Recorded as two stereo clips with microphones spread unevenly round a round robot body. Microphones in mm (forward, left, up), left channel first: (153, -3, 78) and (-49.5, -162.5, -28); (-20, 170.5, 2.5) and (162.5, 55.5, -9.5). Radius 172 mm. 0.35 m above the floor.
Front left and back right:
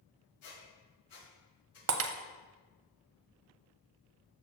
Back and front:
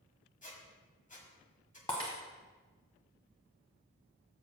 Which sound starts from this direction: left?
A squeak, at 0.4 s.